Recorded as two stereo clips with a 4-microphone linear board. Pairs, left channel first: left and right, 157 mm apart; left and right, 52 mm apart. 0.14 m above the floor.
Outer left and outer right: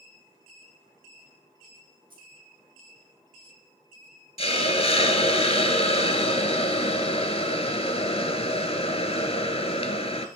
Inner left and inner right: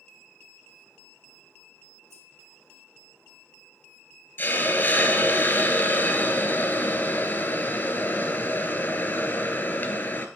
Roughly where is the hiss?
Left.